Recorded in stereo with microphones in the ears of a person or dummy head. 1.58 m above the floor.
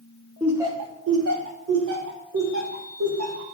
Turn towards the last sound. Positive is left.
turn(degrees=-80)